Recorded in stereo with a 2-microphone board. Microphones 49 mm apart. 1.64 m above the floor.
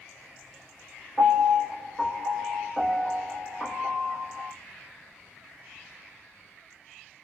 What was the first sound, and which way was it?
A piano, 25° left (ahead or behind).